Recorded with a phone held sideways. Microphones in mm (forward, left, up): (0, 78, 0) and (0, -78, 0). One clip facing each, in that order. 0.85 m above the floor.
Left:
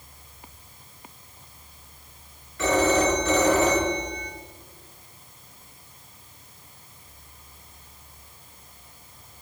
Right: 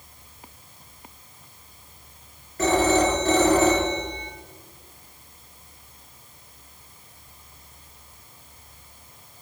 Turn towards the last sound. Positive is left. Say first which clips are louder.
# right 1 dB
turn(degrees=-45)  # may be behind; listen again after turning